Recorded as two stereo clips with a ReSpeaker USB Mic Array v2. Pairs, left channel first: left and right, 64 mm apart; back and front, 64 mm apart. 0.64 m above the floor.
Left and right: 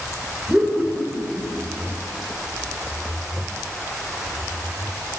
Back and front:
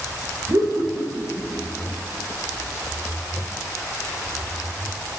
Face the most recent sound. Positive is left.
turn(degrees=-10)